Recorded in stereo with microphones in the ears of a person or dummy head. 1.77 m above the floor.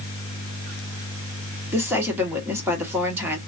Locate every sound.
1.7 s a woman speaking: 15° right (ahead or behind), 1.3 m